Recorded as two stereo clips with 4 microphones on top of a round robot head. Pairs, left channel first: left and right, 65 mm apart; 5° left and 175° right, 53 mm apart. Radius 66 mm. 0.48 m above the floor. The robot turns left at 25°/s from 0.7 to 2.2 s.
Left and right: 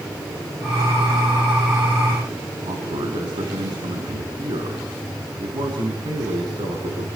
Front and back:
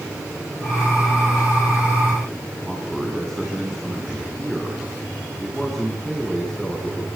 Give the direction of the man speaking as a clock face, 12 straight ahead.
3 o'clock.